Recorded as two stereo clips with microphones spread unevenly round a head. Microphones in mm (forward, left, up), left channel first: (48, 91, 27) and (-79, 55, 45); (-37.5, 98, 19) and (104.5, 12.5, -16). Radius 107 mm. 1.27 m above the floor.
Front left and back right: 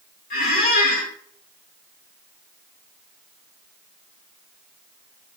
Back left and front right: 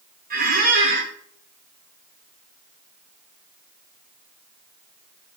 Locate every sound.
0.3 s a squeak: straight ahead, 1.3 m